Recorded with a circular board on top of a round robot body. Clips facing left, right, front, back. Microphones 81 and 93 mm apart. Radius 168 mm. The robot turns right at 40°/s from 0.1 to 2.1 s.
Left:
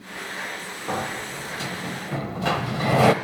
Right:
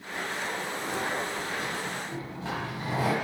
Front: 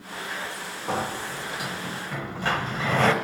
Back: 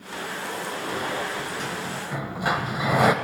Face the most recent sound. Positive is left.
turn(degrees=100)